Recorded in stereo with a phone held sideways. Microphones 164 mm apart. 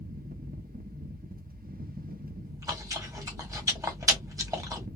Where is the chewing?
20° right (ahead or behind), 1.3 m.